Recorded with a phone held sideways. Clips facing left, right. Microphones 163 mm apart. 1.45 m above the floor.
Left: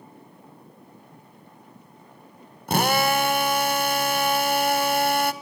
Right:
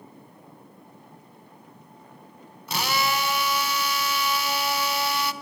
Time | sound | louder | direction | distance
2.7 | a drill | left 6 dB | 50° left (ahead or behind) | 1.1 m